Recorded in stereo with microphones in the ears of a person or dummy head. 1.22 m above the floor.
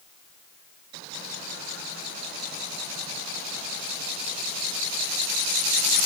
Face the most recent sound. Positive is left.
No sound to turn to.